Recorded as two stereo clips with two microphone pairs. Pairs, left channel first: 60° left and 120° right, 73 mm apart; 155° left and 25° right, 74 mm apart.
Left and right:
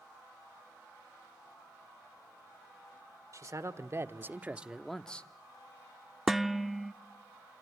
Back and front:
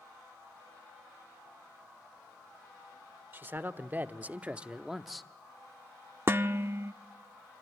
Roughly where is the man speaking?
Right.